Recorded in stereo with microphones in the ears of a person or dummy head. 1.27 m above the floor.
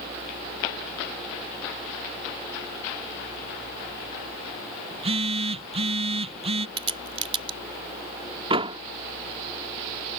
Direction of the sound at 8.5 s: 30° right (ahead or behind).